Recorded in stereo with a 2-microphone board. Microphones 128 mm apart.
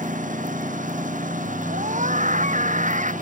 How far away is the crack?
I don't hear a crack.